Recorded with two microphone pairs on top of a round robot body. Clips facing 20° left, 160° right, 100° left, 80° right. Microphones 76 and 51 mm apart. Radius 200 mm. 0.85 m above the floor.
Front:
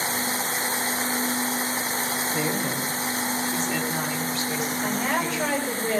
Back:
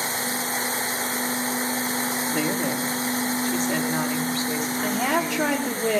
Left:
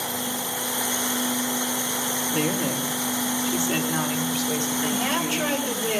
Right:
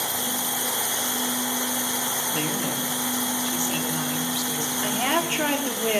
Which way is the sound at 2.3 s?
175° right.